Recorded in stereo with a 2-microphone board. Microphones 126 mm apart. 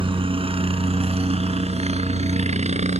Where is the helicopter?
45° right (ahead or behind); by 3.0 s 65° right (ahead or behind).